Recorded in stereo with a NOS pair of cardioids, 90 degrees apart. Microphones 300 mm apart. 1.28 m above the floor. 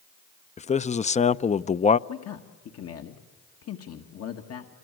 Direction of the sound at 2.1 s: 55° left.